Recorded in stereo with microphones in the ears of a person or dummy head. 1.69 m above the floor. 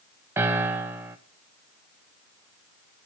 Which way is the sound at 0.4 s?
15° right (ahead or behind).